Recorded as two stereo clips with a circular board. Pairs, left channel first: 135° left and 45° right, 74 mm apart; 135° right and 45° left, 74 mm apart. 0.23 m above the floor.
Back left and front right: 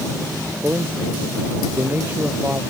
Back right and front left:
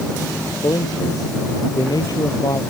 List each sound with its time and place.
0.6 s a man speaking: 105° right